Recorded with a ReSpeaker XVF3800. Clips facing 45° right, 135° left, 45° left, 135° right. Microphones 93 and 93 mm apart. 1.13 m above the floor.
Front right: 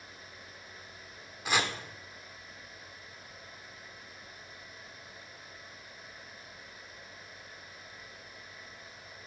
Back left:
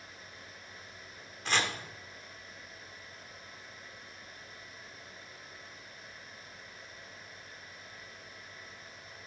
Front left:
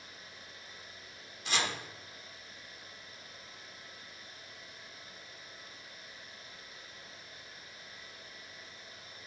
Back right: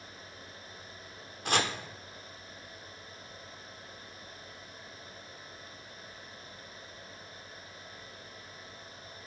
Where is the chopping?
125° right, 1.1 m.